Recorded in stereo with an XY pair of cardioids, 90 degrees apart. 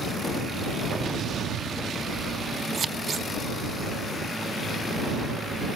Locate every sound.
0.9 s an explosion: 70° right
2.7 s scissors: 50° right